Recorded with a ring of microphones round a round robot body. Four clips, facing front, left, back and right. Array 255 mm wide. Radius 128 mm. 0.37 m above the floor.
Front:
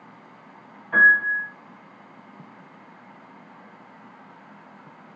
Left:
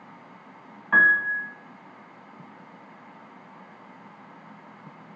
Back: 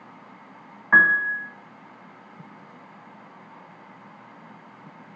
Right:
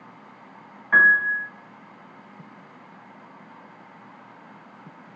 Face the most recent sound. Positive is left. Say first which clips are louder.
# right 2 dB, front 1 dB
turn(degrees=160)